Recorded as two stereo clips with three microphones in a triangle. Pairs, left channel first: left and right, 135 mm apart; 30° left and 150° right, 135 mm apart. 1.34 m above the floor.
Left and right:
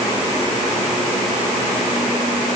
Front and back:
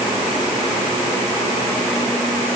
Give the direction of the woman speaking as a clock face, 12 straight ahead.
I don't hear a woman speaking.